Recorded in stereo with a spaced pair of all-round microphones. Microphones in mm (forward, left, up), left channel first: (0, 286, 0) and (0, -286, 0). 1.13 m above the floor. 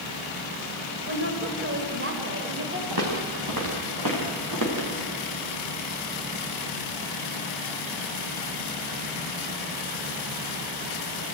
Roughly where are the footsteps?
Right.